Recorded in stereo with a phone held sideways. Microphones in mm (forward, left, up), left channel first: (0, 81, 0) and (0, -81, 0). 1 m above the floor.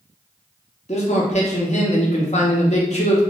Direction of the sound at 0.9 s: 45° left (ahead or behind).